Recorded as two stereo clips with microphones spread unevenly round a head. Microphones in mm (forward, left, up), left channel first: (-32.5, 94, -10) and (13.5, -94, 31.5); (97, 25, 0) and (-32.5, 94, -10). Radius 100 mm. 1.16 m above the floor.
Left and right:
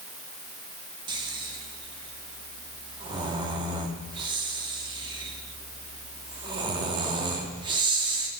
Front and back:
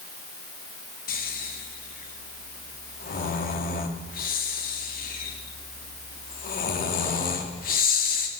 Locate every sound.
1.1 s snoring: 10° right, 2 m